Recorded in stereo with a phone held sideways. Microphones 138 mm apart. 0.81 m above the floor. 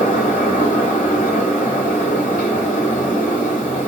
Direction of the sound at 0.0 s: 80° left.